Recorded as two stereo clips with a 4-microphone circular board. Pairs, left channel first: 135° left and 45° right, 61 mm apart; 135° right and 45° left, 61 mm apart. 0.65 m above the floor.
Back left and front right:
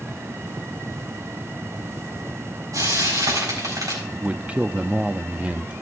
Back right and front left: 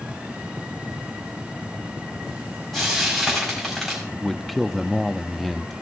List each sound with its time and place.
2.7 s frying: 50° right, 4.5 m
4.1 s a man speaking: 50° right, 0.5 m